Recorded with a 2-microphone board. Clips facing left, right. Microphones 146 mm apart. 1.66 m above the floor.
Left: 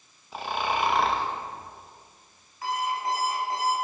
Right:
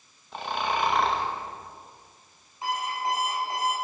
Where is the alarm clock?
20° right (ahead or behind), 5 m.